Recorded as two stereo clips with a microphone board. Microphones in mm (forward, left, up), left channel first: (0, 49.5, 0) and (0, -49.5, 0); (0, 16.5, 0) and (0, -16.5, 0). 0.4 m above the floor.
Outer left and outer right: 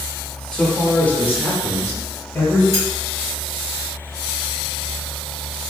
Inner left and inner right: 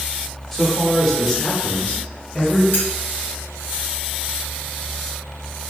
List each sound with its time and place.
0.5 s a man speaking: 10° left (ahead or behind), 0.9 m; by 2.6 s 20° left (ahead or behind), 1.1 m
2.7 s cutlery clinking: 65° left (ahead or behind), 1.7 m